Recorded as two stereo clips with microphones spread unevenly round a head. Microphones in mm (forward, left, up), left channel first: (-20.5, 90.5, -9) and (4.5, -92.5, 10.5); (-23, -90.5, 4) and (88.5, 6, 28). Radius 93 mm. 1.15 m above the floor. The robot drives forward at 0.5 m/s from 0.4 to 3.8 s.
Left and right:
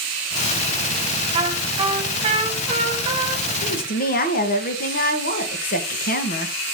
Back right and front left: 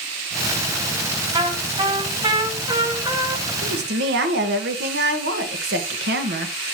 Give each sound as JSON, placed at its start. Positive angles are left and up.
{"t": 1.3, "sound": "a trumpet", "azimuth_deg": -15, "distance_m": 2.5}
{"t": 3.6, "sound": "a woman speaking", "azimuth_deg": 55, "distance_m": 1.5}